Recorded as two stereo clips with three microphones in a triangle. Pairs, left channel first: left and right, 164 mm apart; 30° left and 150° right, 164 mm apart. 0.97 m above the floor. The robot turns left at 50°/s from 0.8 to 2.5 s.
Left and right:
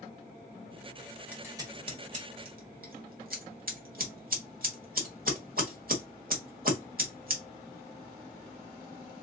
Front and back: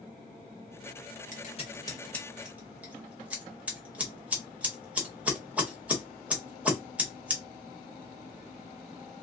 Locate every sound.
1.3 s scissors: 10° right, 1.6 m; by 7.4 s 70° right, 1.6 m